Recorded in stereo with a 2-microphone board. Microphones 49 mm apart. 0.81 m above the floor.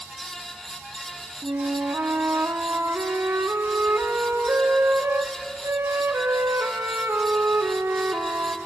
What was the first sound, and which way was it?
A flute, 65° right (ahead or behind).